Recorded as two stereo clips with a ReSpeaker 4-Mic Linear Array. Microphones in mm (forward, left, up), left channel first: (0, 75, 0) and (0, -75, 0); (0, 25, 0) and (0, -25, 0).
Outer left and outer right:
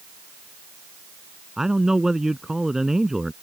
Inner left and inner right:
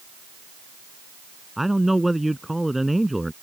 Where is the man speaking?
5° right (ahead or behind).